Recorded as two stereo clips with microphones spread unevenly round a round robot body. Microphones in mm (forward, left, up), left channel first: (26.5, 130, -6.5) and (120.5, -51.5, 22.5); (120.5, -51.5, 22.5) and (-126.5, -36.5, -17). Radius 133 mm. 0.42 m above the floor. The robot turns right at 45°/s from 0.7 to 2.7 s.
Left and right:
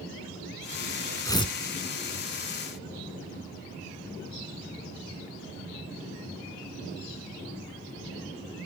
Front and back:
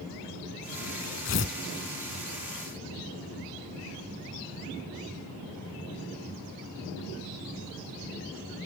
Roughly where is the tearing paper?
Ahead left.